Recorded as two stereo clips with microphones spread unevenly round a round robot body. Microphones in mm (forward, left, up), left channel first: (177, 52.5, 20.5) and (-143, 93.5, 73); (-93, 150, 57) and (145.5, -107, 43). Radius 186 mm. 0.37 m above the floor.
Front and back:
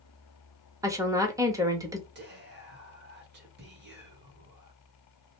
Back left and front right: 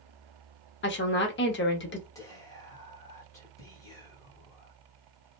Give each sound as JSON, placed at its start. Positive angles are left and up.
{"t": 0.8, "sound": "a woman speaking", "azimuth_deg": 85, "distance_m": 1.0}
{"t": 2.1, "sound": "whispering", "azimuth_deg": -150, "distance_m": 1.2}